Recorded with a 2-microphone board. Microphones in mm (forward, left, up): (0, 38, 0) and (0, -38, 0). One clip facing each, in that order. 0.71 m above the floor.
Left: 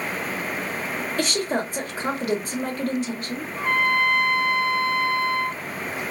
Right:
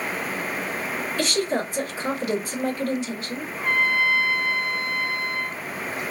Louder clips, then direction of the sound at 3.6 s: Left 1 dB; 75° left (ahead or behind).